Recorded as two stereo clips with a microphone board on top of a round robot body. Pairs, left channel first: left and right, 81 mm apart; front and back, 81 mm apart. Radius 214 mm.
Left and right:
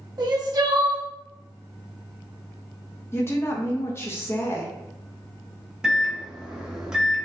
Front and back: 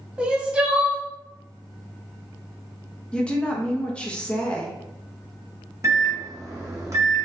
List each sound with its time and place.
0.2 s crying: 110° right, 1.0 m
3.1 s a woman speaking: 65° left, 1.0 m
5.8 s a microwave: 165° right, 1.1 m